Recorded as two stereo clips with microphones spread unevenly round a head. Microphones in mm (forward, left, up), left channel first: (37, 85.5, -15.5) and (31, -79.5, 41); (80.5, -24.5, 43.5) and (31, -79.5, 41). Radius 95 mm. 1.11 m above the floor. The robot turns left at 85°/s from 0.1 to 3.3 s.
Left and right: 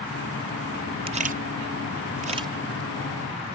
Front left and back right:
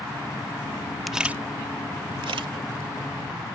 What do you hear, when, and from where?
1.1 s a camera shutter: 40° right; by 2.5 s 165° right